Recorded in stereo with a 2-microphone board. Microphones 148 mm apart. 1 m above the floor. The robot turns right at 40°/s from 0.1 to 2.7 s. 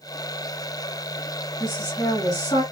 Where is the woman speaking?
5° right, 1.5 m; by 2.6 s 35° left, 1.5 m.